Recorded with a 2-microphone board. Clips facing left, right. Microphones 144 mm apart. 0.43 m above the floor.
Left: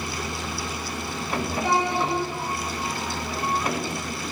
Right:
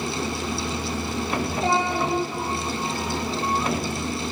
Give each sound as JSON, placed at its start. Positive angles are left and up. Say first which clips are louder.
{"t": 1.6, "sound": "a child speaking", "louder": "even", "side_deg": -70, "distance_m": 1.5}